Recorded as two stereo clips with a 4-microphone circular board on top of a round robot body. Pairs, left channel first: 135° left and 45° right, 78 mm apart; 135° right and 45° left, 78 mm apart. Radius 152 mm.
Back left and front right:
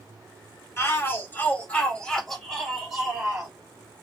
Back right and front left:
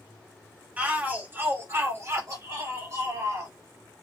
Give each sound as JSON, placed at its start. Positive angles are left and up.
{"t": 0.8, "sound": "a shout", "azimuth_deg": 105, "distance_m": 1.6}